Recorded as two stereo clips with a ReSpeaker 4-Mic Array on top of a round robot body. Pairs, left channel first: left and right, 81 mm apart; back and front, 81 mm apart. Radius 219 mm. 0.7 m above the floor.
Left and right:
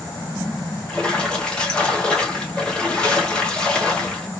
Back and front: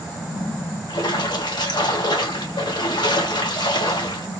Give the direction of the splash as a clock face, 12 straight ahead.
6 o'clock.